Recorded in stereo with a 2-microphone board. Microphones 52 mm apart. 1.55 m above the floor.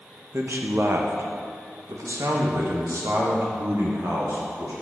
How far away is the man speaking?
About 1.3 m.